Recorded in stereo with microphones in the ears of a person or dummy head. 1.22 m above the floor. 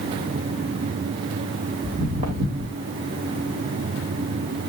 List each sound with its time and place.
1.8 s footsteps: 40° right (ahead or behind), 3.5 m